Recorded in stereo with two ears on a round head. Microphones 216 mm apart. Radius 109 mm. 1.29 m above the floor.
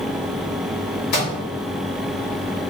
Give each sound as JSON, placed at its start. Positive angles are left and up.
{"t": 1.1, "sound": "a microwave", "side_deg": 75, "distance_m": 2.0}